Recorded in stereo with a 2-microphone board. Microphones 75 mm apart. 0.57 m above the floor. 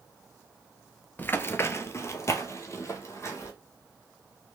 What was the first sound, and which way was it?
Running footsteps, 25° left (ahead or behind).